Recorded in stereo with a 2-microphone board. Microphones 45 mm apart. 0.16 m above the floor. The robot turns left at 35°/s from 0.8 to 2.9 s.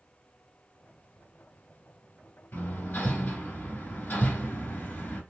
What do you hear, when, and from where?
2.5 s hammering: 55° left (ahead or behind), 1.7 m